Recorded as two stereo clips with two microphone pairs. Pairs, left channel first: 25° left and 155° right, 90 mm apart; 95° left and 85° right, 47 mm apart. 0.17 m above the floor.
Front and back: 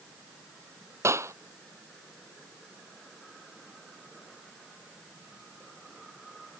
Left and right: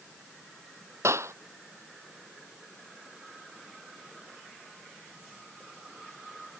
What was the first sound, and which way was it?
A clap, 95° right.